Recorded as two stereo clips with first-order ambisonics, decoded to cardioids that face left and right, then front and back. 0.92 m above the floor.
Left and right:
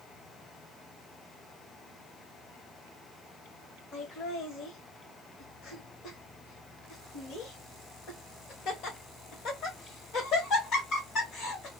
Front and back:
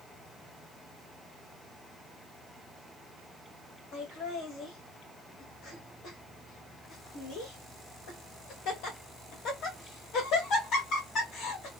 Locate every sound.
3.9 s laughter: 40° left, 1.3 m